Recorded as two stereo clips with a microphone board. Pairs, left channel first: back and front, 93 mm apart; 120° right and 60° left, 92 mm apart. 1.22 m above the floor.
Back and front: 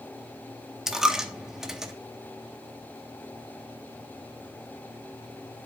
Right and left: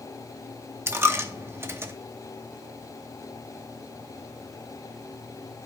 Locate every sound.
0.9 s a dropped coin: 80° left, 0.7 m